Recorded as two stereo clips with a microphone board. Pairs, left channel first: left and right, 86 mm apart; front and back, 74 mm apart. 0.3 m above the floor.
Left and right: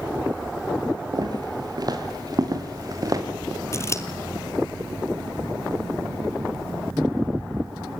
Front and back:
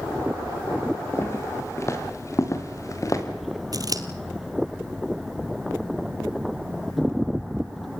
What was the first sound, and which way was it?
Footsteps, 55° right.